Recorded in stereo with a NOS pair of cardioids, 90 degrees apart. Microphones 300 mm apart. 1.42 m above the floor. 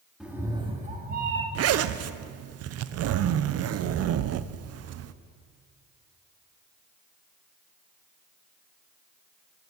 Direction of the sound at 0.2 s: Straight ahead.